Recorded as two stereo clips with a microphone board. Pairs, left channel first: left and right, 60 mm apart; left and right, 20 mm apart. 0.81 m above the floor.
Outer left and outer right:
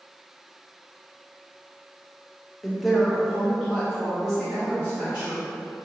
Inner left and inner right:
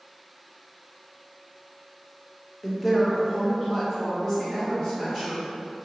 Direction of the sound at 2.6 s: Centre (ahead or behind).